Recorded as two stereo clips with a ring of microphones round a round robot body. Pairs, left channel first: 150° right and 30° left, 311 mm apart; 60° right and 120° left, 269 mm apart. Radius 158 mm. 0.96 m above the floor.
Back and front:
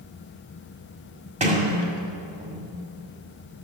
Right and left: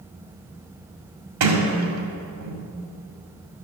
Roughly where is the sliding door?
Left.